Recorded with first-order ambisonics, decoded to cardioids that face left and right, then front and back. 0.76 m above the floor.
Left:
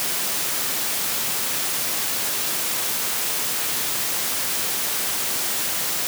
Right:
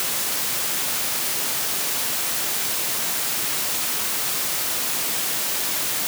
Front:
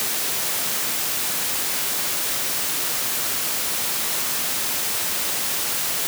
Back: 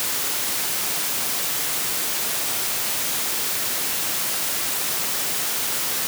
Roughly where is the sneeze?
I don't hear a sneeze.